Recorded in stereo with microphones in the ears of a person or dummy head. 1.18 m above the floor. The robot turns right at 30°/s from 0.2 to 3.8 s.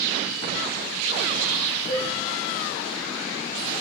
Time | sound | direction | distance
1.9 | a cowbell | 20° left (ahead or behind) | 5.5 m